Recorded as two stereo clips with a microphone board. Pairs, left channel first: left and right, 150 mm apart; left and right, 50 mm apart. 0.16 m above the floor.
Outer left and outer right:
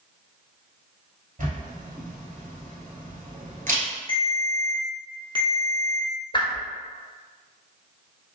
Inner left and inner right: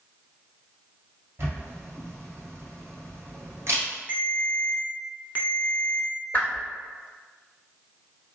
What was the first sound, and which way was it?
A camera shutter, 60° right (ahead or behind).